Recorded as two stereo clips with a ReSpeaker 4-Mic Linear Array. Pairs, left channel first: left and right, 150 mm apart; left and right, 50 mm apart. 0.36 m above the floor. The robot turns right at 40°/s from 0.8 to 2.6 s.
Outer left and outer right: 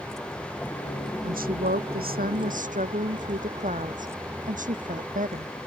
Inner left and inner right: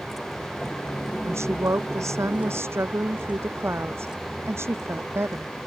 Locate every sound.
0.0 s a vehicle: centre (ahead or behind)
1.2 s a woman speaking: 115° right; by 5.5 s 60° right